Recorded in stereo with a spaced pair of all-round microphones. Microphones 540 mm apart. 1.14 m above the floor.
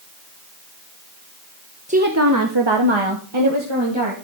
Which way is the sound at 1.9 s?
15° right (ahead or behind).